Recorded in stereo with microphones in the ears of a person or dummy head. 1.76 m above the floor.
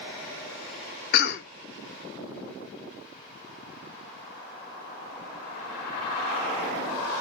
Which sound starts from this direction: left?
A cough, at 1.1 s.